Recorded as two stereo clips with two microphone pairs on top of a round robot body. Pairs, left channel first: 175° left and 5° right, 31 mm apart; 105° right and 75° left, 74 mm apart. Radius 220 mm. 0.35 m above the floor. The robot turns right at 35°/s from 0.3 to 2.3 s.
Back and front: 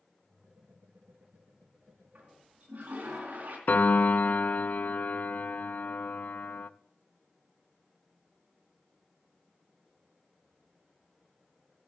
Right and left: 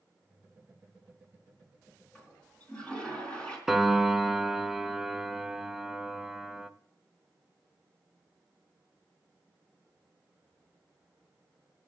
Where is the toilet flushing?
35° right, 3.5 m; by 3.6 s 30° right, 3.5 m.